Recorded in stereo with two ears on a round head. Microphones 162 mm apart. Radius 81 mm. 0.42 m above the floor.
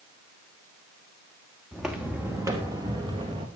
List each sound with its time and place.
1.7 s footsteps: centre (ahead or behind), 2 m; by 3.5 s 30° right (ahead or behind), 3.5 m